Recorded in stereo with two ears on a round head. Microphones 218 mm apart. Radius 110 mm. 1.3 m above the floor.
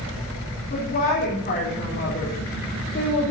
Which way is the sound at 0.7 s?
35° left (ahead or behind).